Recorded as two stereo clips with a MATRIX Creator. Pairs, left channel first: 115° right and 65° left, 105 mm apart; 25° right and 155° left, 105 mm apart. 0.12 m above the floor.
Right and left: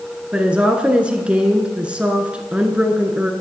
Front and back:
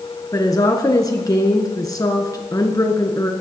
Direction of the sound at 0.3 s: 5° right.